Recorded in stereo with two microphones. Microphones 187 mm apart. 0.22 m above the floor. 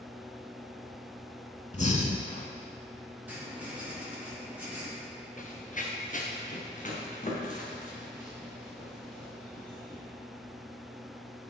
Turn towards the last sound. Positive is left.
turn(degrees=40)  # may be behind; listen again after turning